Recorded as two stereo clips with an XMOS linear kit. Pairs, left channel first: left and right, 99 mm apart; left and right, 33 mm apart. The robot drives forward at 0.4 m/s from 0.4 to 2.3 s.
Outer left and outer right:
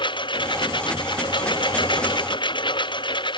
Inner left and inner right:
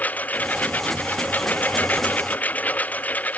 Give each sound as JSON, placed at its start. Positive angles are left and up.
{"t": 0.0, "sound": "a lawn mower", "side_deg": 55}